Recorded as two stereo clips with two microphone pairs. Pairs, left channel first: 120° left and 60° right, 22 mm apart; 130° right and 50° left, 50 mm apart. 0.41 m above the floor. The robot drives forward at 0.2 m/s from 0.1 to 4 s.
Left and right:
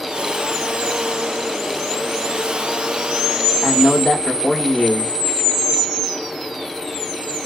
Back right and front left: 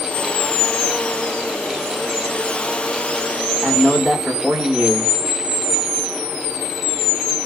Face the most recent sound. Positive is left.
turn(degrees=115)